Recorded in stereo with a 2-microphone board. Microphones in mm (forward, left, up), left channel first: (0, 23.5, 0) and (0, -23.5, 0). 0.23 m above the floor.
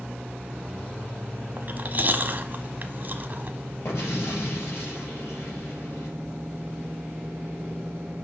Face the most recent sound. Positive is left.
turn(degrees=80)